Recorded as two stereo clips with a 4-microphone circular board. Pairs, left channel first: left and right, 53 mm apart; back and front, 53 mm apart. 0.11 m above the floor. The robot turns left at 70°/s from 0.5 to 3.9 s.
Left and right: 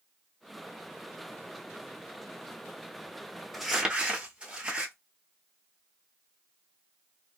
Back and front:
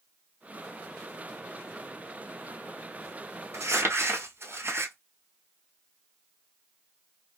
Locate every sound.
3.5 s crumpling: 5° left, 0.7 m; by 4.9 s 20° right, 0.7 m